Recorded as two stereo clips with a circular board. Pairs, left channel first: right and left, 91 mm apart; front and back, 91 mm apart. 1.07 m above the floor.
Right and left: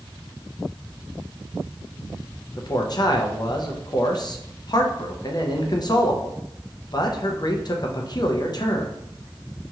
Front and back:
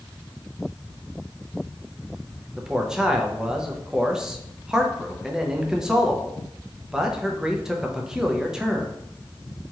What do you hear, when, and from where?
2.6 s a man speaking: 100° right, 0.6 m